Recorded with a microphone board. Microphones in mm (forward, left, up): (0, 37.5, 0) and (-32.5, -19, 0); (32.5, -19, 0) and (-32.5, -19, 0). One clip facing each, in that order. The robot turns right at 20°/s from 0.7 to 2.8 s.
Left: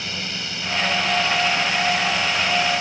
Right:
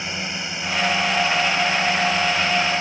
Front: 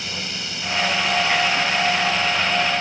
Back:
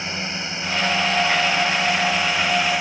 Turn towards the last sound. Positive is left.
turn(degrees=-120)